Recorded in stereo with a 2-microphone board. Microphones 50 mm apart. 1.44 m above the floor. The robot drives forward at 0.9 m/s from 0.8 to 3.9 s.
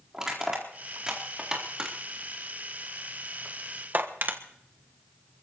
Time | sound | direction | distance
0.1 | crushing | 10° right (ahead or behind) | 4 m